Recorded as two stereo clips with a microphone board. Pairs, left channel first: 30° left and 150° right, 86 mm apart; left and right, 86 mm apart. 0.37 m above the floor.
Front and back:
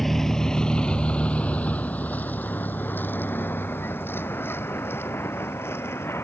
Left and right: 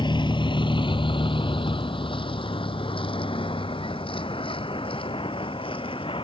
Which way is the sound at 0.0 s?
115° left.